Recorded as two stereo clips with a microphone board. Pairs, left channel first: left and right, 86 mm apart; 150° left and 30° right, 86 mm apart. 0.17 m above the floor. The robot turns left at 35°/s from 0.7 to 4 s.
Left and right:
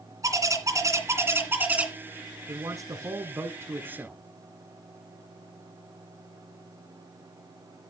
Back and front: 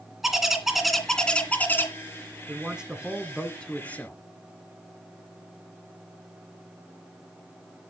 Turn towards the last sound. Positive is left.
turn(degrees=-150)